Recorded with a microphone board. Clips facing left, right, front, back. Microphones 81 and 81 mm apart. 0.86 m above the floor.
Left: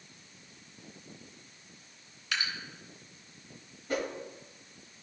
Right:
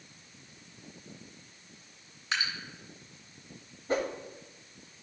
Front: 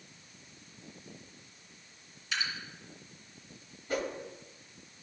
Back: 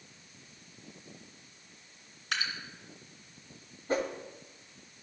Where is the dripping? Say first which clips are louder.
Right 2 dB, back 1 dB; 150° right, 2.5 m.